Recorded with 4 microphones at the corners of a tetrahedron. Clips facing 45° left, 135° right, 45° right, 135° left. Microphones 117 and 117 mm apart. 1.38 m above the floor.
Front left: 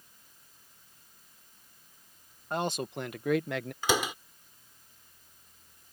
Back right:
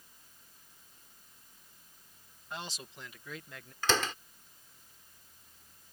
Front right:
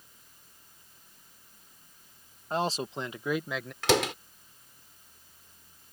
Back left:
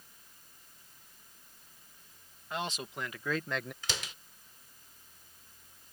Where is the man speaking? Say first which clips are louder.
Front left 12 dB, front right 7 dB; 5° left; by 3.7 s 50° left.